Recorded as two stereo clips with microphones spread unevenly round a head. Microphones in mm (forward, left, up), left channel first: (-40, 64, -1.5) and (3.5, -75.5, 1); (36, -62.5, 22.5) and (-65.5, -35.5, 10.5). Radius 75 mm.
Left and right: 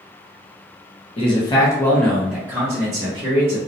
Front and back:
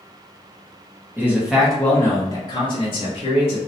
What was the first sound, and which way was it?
A man speaking, 115° left.